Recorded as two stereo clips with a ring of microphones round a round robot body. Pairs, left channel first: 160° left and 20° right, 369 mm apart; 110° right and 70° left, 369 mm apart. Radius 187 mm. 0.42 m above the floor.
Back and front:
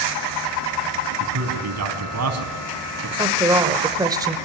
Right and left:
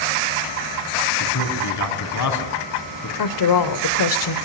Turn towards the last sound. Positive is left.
turn(degrees=-100)